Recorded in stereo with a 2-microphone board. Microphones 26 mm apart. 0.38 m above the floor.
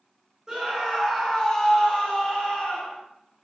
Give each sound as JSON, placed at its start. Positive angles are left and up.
{"t": 0.5, "sound": "a scream", "side_deg": -20, "distance_m": 1.0}